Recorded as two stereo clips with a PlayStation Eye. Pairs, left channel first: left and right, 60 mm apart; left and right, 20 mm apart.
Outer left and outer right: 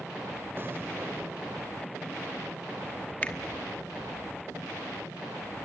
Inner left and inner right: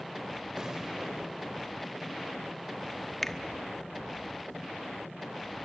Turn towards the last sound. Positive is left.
turn(degrees=25)  # may be behind; listen again after turning